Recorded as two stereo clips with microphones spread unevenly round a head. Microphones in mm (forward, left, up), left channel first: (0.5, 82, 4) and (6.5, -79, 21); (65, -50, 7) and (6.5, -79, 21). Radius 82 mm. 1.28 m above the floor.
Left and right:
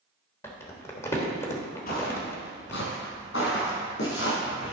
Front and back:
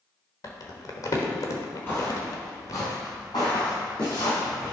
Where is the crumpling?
15° left, 1.2 m.